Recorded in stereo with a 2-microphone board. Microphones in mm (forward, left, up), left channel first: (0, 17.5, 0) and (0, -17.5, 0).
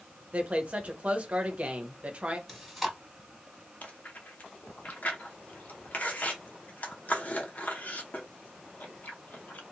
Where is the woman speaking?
35° right (ahead or behind), 0.8 m.